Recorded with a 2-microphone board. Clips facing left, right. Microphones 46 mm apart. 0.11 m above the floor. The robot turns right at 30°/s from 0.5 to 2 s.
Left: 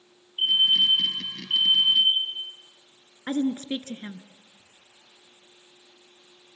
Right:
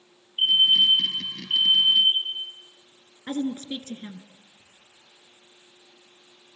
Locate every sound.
0.4 s a fire alarm: 45° right, 2.5 m; by 2.4 s straight ahead, 2.5 m
3.3 s a woman speaking: 30° left (ahead or behind), 1.2 m
4.6 s whispering: 55° right (ahead or behind), 6 m